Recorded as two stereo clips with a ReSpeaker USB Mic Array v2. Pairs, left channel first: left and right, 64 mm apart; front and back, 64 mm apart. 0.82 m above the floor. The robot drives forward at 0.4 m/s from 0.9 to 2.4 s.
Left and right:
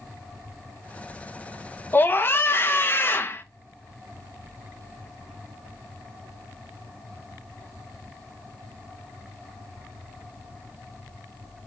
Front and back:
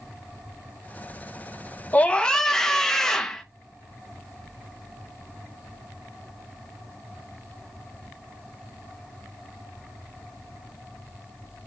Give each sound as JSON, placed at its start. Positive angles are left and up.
{"t": 1.9, "sound": "a scream", "azimuth_deg": 50, "distance_m": 0.6}